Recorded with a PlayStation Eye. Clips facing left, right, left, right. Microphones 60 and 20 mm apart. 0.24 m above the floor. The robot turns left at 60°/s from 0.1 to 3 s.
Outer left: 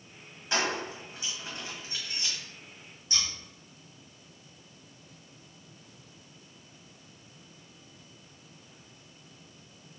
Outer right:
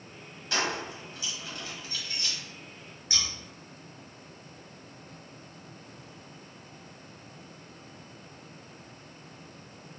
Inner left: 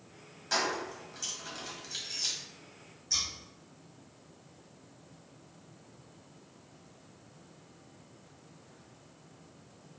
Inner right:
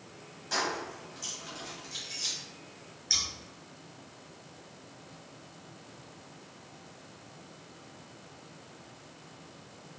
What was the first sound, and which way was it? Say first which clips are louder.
Keys jangling: outer left 1 dB, inner left 1 dB; 20° left (ahead or behind).